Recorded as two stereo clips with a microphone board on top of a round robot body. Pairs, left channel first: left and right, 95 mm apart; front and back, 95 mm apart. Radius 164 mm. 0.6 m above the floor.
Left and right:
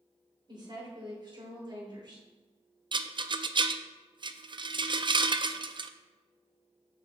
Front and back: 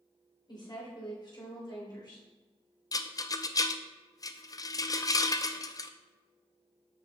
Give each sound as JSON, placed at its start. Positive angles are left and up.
{"t": 0.5, "sound": "a woman speaking", "azimuth_deg": -45, "distance_m": 3.0}
{"t": 2.9, "sound": "a rattle", "azimuth_deg": -50, "distance_m": 0.5}